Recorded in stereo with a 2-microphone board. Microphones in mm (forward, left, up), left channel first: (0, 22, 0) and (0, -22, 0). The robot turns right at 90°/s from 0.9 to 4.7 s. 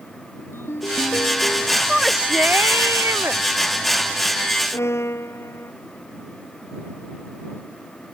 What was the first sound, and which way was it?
A ringtone, 60° left.